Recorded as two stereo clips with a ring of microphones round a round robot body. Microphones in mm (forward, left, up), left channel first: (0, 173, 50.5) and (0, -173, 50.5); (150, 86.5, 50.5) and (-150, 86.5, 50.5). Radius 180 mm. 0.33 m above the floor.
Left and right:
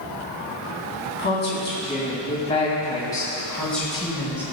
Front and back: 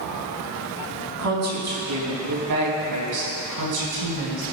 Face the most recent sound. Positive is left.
turn(degrees=-175)